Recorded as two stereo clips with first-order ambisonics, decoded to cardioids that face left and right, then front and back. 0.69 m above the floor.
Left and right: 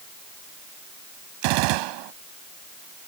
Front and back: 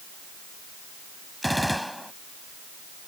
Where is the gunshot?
90° right.